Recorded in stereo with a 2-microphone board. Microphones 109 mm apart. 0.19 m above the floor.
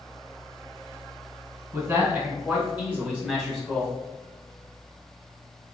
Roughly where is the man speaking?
Right.